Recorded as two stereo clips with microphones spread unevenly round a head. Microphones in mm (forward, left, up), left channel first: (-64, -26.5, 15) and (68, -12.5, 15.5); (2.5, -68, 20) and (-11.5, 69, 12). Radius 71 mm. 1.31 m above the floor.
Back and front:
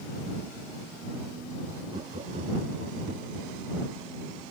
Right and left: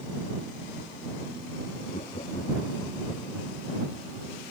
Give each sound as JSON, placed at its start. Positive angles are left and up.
{"t": 1.9, "sound": "laughter", "azimuth_deg": -40}